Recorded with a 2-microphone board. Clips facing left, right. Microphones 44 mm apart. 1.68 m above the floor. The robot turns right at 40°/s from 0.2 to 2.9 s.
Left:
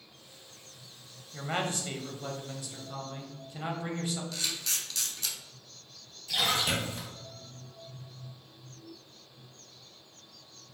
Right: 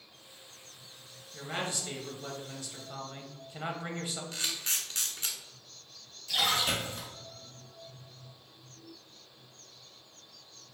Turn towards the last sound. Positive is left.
turn(degrees=15)  # may be behind; listen again after turning